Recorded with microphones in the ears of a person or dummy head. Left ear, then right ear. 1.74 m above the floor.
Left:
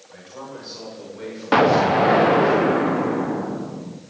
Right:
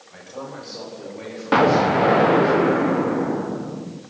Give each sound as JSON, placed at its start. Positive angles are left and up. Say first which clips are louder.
{"t": 0.1, "sound": "a man speaking", "louder": "right 2 dB", "side_deg": 0, "distance_m": 6.5}
{"t": 1.5, "sound": "an explosion", "louder": "left 1 dB", "side_deg": 10, "distance_m": 0.9}